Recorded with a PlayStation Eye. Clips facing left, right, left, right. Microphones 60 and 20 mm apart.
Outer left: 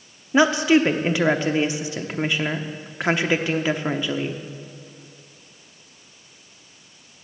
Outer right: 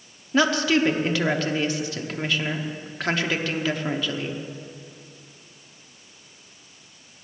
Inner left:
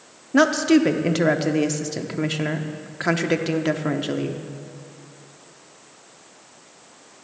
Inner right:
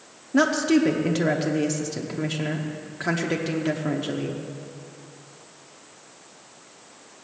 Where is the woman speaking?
20° left (ahead or behind), 0.9 m.